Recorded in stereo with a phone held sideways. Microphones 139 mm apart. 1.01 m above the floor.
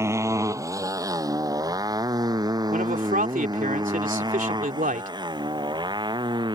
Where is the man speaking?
80° right.